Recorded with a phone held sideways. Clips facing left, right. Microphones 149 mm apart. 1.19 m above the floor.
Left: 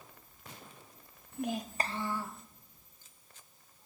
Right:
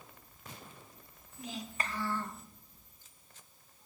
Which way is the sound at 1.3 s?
65° left (ahead or behind).